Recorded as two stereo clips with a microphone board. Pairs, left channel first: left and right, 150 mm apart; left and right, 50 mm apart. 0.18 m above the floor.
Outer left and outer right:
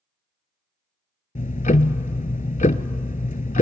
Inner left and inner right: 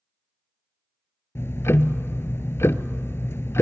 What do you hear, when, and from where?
1.4 s ticking: 60° left (ahead or behind), 0.5 m